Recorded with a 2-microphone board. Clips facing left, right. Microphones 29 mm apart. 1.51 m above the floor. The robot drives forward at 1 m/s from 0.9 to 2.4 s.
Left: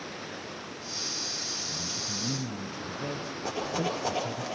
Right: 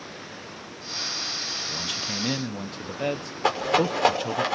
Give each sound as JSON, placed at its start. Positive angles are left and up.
{"t": 1.7, "sound": "a man speaking", "side_deg": -65, "distance_m": 1.0}
{"t": 3.4, "sound": "a rattle", "side_deg": -80, "distance_m": 6.0}